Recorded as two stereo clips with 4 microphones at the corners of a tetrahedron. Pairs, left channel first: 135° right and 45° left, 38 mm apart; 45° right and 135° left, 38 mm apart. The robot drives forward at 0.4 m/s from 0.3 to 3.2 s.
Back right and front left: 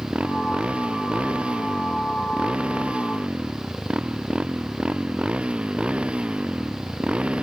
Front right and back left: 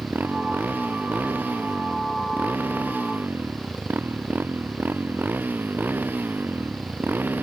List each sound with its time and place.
0.0 s a motorcycle: 100° left; by 7.4 s 105° left